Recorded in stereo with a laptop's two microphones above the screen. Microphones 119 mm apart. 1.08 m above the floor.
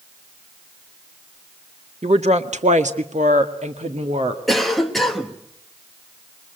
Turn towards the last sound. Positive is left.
turn(degrees=0)  # may be behind; listen again after turning